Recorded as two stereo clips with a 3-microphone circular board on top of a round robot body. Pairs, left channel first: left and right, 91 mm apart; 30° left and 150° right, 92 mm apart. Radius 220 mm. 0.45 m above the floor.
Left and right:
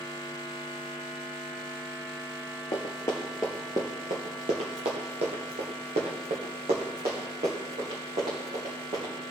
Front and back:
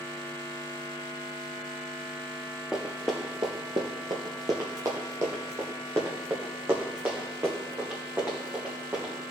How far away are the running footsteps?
About 0.6 m.